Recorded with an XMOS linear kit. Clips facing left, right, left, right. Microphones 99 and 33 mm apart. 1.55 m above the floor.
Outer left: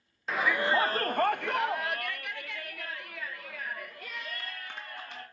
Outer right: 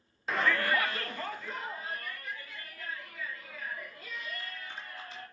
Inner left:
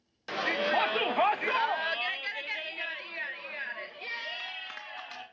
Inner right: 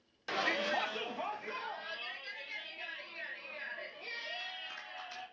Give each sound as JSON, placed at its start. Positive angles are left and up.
{"t": 0.3, "sound": "a shout", "side_deg": 0, "distance_m": 0.6}